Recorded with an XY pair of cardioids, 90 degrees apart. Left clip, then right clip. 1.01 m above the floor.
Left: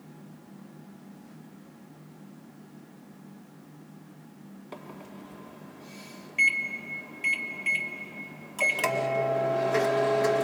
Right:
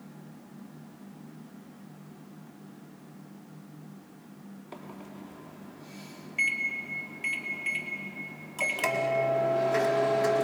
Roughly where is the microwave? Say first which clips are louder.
Left 1 dB; ahead.